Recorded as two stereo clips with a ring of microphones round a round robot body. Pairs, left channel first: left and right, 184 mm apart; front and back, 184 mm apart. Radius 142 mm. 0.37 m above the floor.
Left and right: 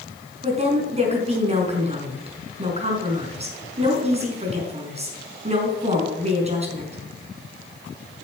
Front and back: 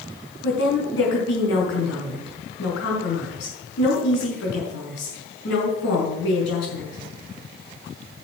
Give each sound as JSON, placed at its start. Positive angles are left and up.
{"t": 0.4, "sound": "a woman speaking", "azimuth_deg": -35, "distance_m": 5.5}